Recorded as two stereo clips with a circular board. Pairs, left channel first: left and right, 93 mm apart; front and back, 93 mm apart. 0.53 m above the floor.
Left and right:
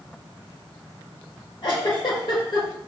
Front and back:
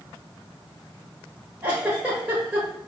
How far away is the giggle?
About 1.4 m.